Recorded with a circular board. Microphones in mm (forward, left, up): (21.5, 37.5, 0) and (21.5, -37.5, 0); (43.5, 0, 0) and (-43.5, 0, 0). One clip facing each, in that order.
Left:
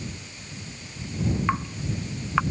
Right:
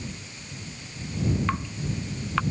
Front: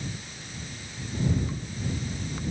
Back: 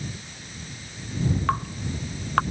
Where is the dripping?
165° left.